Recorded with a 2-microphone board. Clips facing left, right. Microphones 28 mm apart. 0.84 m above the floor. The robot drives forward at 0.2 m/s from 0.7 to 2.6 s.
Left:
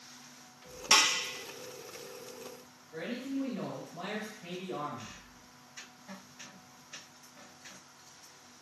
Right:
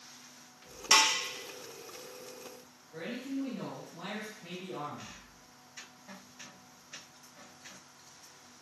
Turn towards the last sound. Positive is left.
turn(degrees=30)  # may be behind; listen again after turning